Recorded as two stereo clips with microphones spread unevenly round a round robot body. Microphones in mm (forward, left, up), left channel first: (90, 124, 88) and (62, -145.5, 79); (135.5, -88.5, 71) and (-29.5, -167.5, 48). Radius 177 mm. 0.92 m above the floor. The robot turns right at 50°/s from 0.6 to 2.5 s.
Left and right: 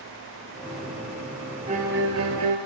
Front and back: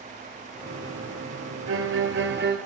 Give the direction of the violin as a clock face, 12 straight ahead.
6 o'clock.